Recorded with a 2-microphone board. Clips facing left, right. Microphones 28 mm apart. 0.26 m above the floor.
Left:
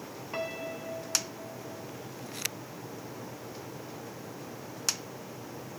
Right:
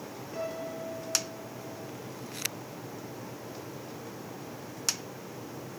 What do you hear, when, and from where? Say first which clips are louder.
0.3 s a piano: even; 55° left (ahead or behind), 2 m